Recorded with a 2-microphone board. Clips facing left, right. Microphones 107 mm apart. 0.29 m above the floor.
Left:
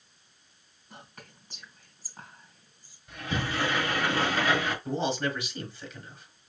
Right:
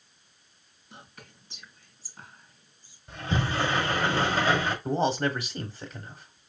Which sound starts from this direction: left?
Whispering, at 0.9 s.